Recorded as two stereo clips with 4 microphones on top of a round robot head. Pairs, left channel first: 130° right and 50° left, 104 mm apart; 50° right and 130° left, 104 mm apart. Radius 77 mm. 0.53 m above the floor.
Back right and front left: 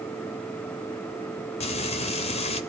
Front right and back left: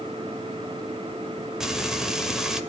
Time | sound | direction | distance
1.6 | frying | 145° right | 2 m